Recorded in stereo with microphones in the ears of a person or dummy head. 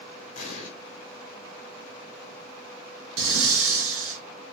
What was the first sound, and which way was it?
An explosion, 45° left (ahead or behind).